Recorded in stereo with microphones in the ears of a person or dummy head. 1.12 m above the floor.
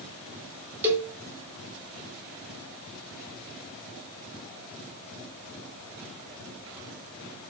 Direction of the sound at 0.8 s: 10° right (ahead or behind).